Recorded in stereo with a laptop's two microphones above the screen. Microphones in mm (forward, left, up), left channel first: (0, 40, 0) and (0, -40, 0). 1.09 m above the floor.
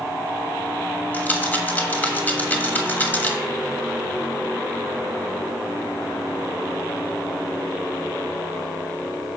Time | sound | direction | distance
1.1 | a rattle | 25° left (ahead or behind) | 1.3 m